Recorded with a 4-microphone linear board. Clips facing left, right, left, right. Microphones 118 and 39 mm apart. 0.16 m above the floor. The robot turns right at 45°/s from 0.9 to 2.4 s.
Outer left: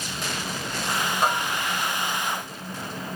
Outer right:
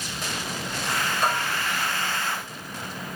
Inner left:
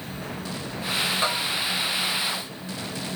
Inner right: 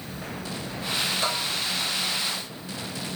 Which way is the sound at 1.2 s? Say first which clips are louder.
Outer left 2 dB, inner left 2 dB; 30° left (ahead or behind).